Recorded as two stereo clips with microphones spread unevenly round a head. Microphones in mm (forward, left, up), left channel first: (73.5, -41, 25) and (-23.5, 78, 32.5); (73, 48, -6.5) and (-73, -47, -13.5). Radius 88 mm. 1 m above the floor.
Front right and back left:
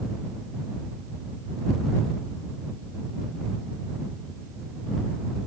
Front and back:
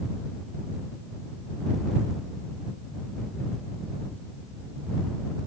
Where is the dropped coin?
I don't hear a dropped coin.